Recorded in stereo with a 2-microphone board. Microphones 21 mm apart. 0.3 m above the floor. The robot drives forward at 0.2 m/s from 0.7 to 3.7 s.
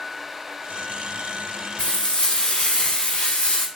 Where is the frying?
65° left (ahead or behind), 1.0 m; by 3.7 s 75° left (ahead or behind), 0.9 m.